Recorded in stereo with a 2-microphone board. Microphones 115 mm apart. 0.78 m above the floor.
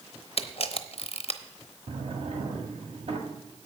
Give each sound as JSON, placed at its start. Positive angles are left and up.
{"t": 0.4, "sound": "a camera shutter", "side_deg": 55, "distance_m": 0.7}
{"t": 1.9, "sound": "a drawer", "side_deg": -60, "distance_m": 1.6}